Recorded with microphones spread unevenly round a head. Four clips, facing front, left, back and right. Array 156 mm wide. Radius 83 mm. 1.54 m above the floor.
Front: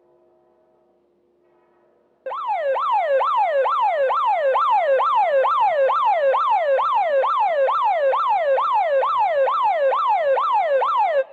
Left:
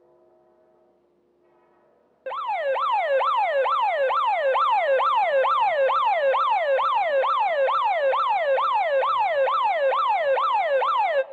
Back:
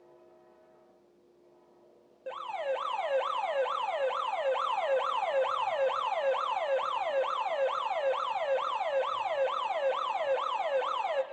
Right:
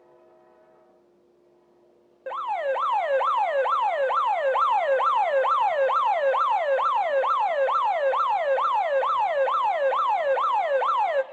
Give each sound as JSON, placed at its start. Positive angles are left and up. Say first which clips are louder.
{"t": 2.3, "sound": "an alarm", "louder": "left 1 dB, front 12 dB", "azimuth_deg": -10, "distance_m": 0.6}